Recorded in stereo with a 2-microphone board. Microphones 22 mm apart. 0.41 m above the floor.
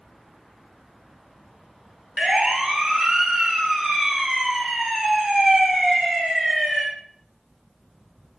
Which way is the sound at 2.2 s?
40° right (ahead or behind).